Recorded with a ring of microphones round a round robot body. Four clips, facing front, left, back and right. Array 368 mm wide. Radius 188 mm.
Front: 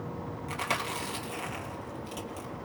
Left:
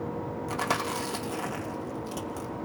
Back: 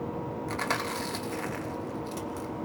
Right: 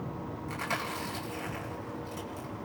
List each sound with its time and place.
0.5 s chewing: 100° left, 1.9 m